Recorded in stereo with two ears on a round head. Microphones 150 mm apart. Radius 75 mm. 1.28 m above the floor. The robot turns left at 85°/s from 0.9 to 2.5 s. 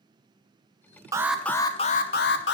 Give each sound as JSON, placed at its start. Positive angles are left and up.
{"t": 1.1, "sound": "an alarm", "azimuth_deg": -160, "distance_m": 0.8}